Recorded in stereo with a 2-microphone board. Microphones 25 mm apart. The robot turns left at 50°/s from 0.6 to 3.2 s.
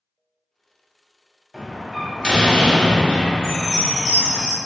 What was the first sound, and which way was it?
A door slam, 170° right.